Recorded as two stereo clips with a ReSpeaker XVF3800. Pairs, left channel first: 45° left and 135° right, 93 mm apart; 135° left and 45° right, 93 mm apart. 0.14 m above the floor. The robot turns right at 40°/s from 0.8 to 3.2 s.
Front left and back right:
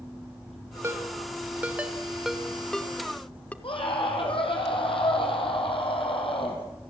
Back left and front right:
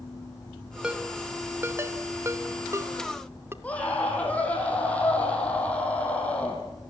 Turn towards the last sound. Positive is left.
turn(degrees=60)